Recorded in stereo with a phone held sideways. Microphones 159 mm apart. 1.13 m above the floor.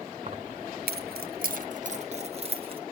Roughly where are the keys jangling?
Right.